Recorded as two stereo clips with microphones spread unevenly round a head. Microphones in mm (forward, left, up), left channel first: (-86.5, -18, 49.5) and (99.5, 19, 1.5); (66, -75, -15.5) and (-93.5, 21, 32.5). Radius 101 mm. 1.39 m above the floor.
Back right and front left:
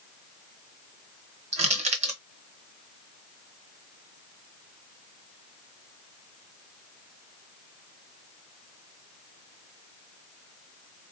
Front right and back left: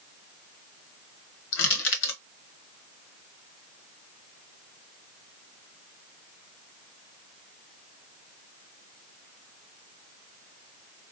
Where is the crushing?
45° right, 1.2 m.